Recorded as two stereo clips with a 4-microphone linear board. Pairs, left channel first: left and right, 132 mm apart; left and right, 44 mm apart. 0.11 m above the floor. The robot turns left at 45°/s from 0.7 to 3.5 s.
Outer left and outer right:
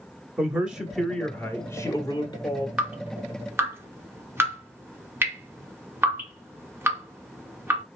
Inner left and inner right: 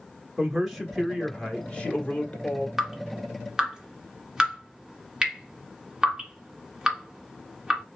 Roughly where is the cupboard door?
I don't hear a cupboard door.